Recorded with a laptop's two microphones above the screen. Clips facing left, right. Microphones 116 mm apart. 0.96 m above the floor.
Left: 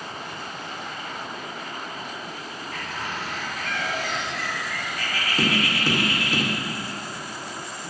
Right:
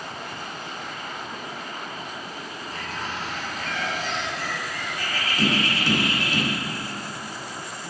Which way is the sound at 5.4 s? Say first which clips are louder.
Even; 40° left (ahead or behind).